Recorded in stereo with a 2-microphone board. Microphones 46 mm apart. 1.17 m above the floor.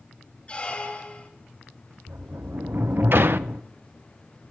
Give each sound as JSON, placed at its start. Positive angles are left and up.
{"t": 0.5, "sound": "a squeak", "side_deg": 30, "distance_m": 2.0}
{"t": 2.1, "sound": "a sliding door", "side_deg": -55, "distance_m": 0.5}